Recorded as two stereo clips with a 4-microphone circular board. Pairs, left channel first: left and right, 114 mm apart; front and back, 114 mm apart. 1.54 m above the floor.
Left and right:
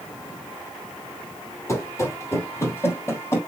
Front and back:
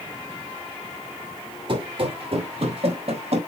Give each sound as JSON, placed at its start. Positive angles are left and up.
{"t": 1.7, "sound": "running footsteps", "azimuth_deg": 145, "distance_m": 2.5}